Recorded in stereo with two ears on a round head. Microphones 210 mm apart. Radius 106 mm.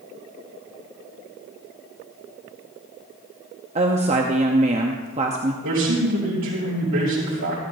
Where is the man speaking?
70° right (ahead or behind), 5 m.